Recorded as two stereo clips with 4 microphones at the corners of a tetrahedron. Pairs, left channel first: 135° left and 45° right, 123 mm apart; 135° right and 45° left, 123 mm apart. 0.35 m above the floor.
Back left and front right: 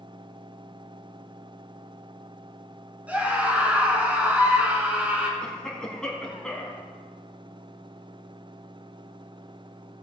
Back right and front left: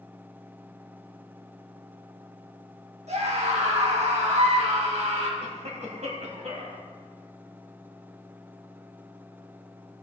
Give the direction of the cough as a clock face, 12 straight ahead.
10 o'clock.